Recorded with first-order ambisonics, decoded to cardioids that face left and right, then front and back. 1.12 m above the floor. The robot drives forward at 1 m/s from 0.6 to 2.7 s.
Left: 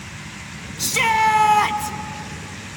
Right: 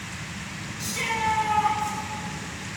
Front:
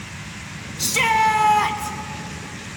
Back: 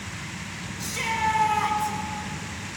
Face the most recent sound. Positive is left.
turn(degrees=110)